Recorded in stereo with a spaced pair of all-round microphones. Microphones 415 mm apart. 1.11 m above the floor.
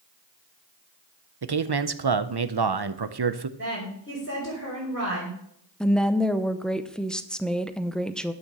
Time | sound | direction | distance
1.4 | a man speaking | 60° right (ahead or behind) | 0.7 m
3.6 | a woman speaking | 30° left (ahead or behind) | 4 m
5.8 | a woman speaking | centre (ahead or behind) | 0.7 m